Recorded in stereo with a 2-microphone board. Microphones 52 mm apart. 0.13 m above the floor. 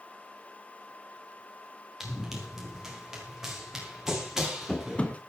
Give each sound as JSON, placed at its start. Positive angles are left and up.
{"t": 2.0, "sound": "running footsteps", "side_deg": -10, "distance_m": 7.0}
{"t": 4.1, "sound": "running footsteps", "side_deg": 15, "distance_m": 3.5}